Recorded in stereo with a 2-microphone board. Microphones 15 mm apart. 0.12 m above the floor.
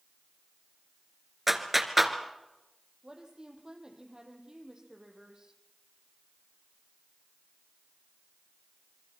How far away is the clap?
About 1.9 m.